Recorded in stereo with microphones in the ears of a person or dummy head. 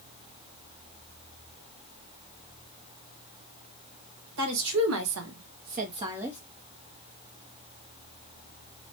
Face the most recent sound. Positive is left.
turn(degrees=-5)  # may be behind; listen again after turning